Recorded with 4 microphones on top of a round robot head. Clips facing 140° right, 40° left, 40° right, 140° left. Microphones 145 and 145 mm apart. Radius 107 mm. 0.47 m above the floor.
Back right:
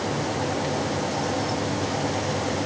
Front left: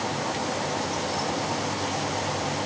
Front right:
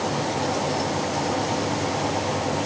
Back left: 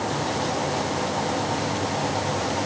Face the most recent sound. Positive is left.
No sound to turn to.